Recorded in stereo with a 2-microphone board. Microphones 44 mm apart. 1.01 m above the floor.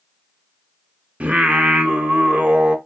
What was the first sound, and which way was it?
Singing, 30° right (ahead or behind).